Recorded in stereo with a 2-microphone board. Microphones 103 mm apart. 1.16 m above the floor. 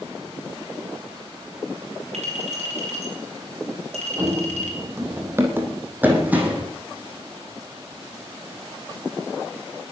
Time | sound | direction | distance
2.1 | a clink | 85° right | 5.5 m
4.2 | running footsteps | 30° right (ahead or behind) | 2.5 m